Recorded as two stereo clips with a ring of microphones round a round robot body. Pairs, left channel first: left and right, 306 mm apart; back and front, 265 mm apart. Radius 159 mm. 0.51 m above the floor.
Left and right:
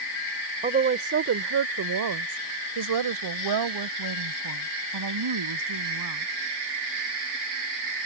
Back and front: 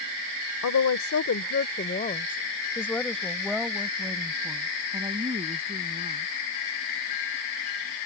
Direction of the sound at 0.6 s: 155° right.